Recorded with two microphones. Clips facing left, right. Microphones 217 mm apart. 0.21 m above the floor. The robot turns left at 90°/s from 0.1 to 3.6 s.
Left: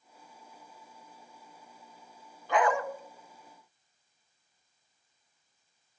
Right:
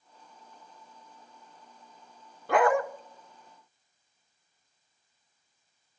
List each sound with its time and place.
2.5 s a dog barking: 70° right (ahead or behind), 0.8 m; by 2.8 s 55° right (ahead or behind), 0.8 m